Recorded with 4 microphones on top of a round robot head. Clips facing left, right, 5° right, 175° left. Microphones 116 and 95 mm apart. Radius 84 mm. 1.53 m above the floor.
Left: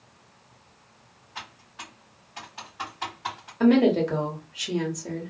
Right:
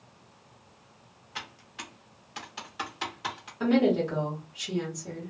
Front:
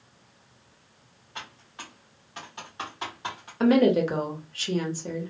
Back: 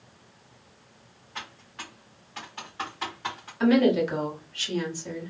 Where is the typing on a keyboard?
85° right, 0.6 m.